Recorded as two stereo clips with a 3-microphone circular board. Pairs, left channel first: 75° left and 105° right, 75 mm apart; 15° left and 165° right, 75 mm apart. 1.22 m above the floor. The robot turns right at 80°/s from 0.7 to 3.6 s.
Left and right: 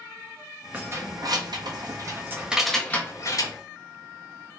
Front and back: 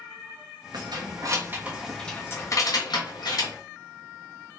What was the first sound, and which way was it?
Keys jangling, 170° right.